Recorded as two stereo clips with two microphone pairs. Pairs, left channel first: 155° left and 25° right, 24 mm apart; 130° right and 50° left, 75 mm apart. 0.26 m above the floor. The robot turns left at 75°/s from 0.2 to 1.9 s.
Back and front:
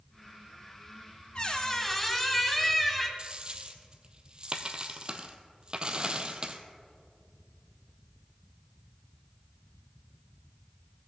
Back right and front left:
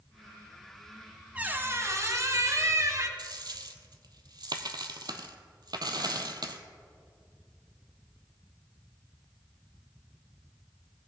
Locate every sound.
1.4 s a squeak: 115° left, 0.8 m; by 3.1 s 75° left, 0.8 m
3.2 s a dropped coin: 25° left, 0.7 m